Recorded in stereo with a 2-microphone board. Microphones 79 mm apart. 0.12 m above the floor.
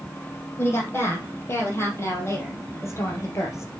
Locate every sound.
0.6 s a woman speaking: 30° left (ahead or behind), 4 m; by 3.7 s 40° left (ahead or behind), 2.5 m